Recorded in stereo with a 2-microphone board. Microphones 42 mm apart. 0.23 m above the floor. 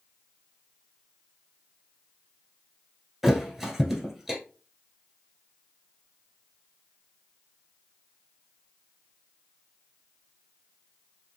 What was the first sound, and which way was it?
A thud, centre (ahead or behind).